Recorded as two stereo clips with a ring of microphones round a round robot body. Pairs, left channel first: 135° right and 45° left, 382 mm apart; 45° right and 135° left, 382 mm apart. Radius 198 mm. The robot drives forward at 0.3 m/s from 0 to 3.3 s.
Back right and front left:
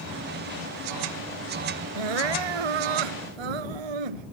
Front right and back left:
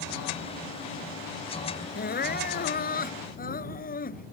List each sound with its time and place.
1.9 s crying: 20° left; by 4.3 s 25° left